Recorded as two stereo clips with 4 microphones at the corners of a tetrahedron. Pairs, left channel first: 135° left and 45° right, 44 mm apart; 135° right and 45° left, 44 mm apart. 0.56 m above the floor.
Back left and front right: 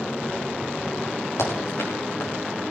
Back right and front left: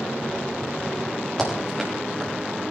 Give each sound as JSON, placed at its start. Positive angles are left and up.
{"t": 1.4, "sound": "running footsteps", "azimuth_deg": 145, "distance_m": 8.5}